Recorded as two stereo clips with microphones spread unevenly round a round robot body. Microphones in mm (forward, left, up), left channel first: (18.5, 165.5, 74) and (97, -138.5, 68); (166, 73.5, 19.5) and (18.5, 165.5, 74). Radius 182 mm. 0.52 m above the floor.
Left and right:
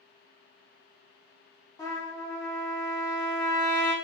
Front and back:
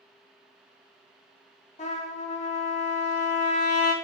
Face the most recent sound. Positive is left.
turn(degrees=25)